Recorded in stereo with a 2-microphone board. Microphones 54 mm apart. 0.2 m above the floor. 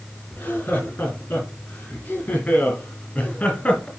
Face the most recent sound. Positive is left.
turn(degrees=20)  # may be behind; listen again after turning